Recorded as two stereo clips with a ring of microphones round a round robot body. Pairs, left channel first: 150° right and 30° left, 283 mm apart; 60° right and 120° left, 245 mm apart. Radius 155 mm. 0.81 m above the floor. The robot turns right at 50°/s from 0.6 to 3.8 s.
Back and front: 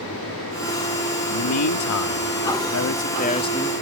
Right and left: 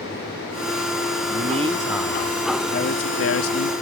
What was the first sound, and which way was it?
A man speaking, 175° left.